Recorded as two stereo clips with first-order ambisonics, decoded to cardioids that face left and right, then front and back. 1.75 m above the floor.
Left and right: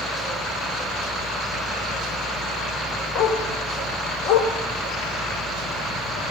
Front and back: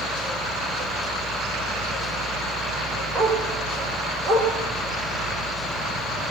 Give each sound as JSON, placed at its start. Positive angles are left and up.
{"t": 3.1, "sound": "a dog barking", "azimuth_deg": 70, "distance_m": 4.0}